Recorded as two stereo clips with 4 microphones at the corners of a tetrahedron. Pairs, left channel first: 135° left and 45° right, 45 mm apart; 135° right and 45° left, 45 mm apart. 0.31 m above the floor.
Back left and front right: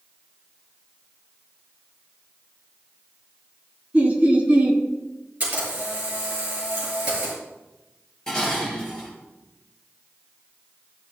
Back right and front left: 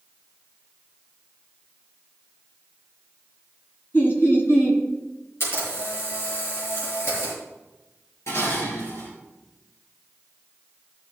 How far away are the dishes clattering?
About 4.5 m.